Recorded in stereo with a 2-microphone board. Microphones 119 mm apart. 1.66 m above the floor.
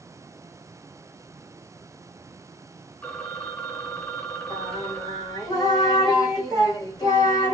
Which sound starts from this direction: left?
Singing, at 4.5 s.